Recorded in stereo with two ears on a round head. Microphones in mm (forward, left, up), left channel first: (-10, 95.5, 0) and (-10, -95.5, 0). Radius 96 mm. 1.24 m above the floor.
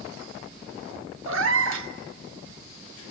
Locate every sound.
1.3 s a cat meowing: 70° right (ahead or behind), 1.3 m